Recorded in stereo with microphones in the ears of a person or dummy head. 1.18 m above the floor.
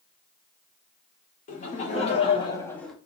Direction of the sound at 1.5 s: 40° left (ahead or behind).